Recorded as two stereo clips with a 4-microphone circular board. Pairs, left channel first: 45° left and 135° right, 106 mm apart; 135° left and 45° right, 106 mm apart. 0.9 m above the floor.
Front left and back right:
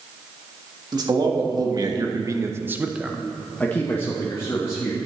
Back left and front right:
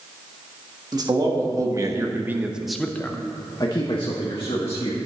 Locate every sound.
0.9 s a man speaking: 90° right, 1.6 m; by 5.0 s 100° left, 1.6 m